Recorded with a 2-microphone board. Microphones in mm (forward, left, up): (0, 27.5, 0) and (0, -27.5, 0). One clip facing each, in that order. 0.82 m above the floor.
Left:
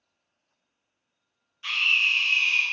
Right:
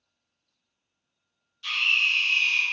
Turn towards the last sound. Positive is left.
turn(degrees=30)  # may be behind; listen again after turning